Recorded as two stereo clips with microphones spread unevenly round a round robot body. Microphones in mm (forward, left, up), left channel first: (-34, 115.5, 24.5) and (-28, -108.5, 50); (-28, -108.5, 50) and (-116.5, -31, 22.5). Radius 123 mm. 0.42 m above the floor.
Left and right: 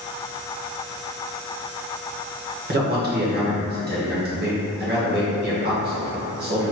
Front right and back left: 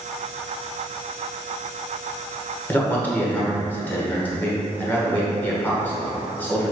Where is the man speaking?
125° right, 1.6 m.